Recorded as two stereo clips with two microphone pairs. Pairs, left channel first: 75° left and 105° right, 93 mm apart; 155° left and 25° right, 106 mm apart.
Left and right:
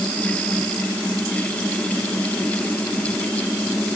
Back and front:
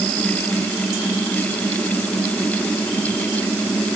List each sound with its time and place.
Only background noise.